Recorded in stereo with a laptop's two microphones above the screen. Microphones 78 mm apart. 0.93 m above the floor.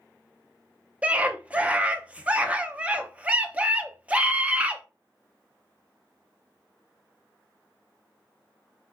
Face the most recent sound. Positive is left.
turn(degrees=-20)  # may be behind; listen again after turning